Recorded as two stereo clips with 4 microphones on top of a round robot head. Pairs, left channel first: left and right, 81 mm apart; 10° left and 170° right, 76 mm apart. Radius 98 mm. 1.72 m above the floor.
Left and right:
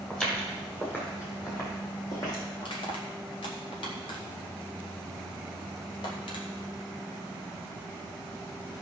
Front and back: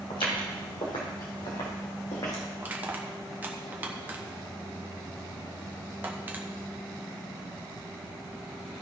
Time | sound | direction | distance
0.1 | footsteps | 15° left | 3.5 m
2.6 | crushing | 125° left | 1.2 m